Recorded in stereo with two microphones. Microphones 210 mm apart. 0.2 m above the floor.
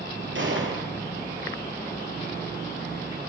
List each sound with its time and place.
0.3 s a gunshot: 65° right (ahead or behind), 5 m